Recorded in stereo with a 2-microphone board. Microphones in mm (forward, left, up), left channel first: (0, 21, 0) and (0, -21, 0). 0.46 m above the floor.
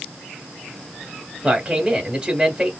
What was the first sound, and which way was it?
A man speaking, 25° right (ahead or behind).